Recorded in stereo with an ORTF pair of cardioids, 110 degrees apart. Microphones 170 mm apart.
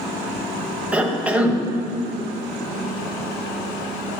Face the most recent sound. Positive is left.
turn(degrees=-10)